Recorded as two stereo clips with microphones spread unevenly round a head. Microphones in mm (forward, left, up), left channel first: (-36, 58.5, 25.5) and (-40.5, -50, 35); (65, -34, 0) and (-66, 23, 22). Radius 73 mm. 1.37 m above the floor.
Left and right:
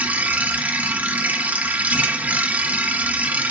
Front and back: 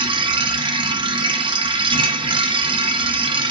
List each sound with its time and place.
0.0 s a machine running: 160° right, 1.0 m